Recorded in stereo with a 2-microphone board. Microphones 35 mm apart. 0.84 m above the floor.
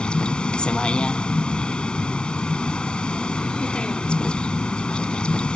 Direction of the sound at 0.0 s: 30° left (ahead or behind).